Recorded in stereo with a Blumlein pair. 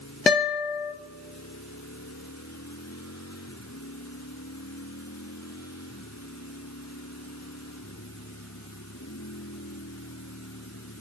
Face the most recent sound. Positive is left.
turn(degrees=20)